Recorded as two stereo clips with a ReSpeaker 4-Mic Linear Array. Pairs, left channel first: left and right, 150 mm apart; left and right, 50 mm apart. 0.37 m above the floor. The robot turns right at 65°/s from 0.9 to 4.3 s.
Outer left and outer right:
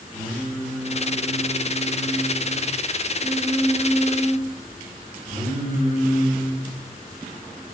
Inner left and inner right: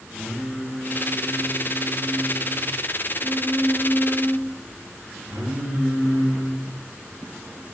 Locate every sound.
0.1 s singing: 25° left, 1.2 m; by 7.8 s 110° right, 1.2 m